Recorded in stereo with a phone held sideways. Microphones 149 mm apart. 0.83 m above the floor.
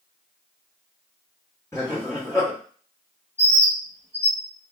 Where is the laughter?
20° left (ahead or behind), 1.6 m.